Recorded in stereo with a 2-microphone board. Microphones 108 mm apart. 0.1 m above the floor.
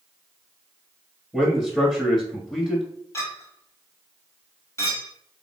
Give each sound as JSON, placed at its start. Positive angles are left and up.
{"t": 1.3, "sound": "a man speaking", "side_deg": 5, "distance_m": 1.1}
{"t": 3.1, "sound": "a clink", "side_deg": 30, "distance_m": 1.3}